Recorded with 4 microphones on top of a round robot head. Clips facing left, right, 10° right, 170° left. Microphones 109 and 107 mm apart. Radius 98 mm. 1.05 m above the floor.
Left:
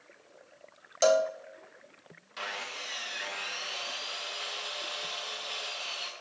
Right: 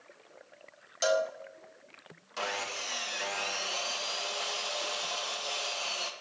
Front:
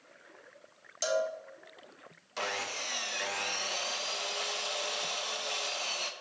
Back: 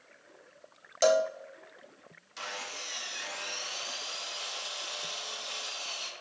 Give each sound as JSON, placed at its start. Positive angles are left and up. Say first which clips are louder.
{"t": 1.0, "sound": "a cowbell", "louder": "left 4 dB, back 6 dB", "azimuth_deg": 140, "distance_m": 0.9}
{"t": 2.4, "sound": "sawing", "louder": "right 4 dB, front 5 dB", "azimuth_deg": -35, "distance_m": 1.1}